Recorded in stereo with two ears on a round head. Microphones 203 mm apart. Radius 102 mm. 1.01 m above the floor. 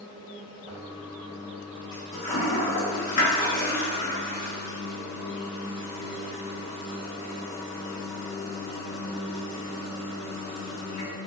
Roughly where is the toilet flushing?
Left.